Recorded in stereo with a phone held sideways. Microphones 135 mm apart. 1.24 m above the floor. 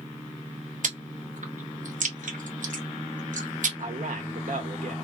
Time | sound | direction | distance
0.8 | chewing | 70° right (ahead or behind) | 0.9 m
3.8 | a man speaking | 80° right | 1.1 m